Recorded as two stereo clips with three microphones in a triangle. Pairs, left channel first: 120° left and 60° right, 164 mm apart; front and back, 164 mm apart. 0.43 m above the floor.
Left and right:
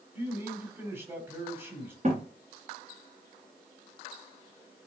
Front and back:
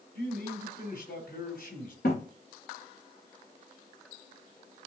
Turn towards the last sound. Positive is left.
turn(degrees=-10)